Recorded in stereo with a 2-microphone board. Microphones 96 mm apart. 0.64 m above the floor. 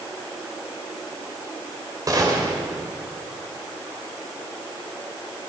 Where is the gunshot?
40° right (ahead or behind), 2.5 m.